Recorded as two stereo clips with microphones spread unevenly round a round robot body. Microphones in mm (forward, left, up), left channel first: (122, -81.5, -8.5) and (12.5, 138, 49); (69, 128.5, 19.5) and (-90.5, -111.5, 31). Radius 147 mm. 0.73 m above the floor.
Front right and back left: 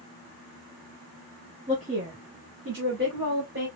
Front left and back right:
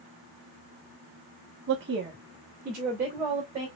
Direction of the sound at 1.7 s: 170° right.